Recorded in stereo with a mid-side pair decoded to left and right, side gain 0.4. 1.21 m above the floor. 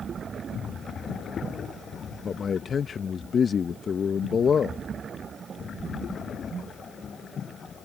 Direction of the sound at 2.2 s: 50° left.